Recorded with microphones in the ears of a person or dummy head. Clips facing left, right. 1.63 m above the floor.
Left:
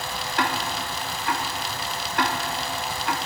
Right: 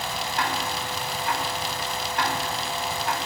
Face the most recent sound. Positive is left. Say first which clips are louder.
# left 3 dB
turn(degrees=65)  # may be behind; listen again after turning